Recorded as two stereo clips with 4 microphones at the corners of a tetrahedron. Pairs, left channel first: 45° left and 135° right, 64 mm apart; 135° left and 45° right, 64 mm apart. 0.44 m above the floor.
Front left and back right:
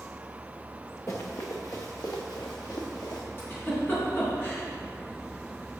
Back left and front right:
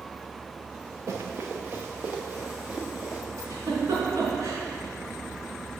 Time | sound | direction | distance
1.1 | running footsteps | straight ahead | 1.9 m
3.4 | a giggle | 15° right | 4 m